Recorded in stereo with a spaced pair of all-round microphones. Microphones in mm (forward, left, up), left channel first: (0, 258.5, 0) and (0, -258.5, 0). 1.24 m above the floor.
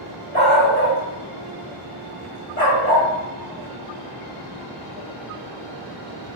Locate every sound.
0.3 s a dog barking: 15° left (ahead or behind), 1.0 m; by 3.1 s 30° left (ahead or behind), 1.1 m